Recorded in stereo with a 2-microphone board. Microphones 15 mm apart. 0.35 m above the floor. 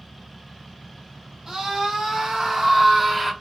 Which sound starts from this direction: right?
A scream, at 1.5 s.